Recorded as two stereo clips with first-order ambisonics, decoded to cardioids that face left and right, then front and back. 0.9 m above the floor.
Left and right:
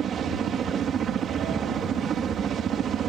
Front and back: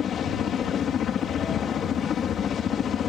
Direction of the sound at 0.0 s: 45° right.